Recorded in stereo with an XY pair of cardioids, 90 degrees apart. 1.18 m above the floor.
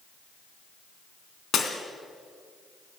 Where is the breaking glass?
65° left, 3 m.